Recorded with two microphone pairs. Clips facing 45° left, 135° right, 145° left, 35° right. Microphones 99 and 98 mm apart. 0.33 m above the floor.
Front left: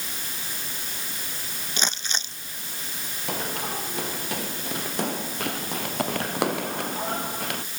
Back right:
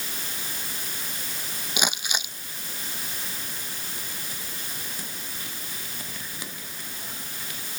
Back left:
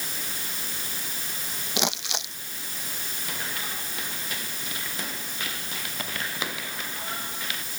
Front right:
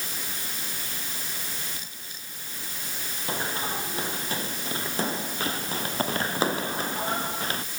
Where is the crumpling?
145° left.